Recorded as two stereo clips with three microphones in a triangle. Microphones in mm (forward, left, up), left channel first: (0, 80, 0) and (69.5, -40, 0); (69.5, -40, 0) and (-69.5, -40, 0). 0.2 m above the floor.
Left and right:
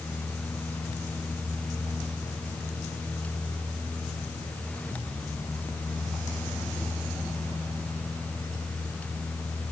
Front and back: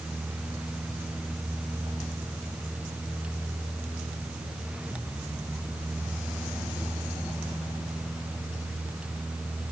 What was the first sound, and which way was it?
Only background noise.